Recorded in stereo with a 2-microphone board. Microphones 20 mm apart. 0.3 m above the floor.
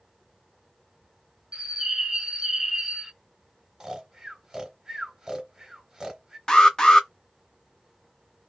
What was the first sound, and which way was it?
A bird, 30° right (ahead or behind).